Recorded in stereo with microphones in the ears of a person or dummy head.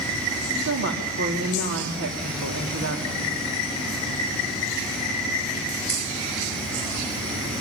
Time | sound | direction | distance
0.6 | a woman speaking | 70° right (ahead or behind) | 3 m